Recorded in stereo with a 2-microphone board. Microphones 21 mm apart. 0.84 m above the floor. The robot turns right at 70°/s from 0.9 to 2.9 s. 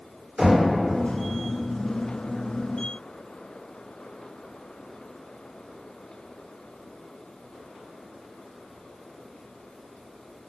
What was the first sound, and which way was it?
Knocking, 60° right (ahead or behind).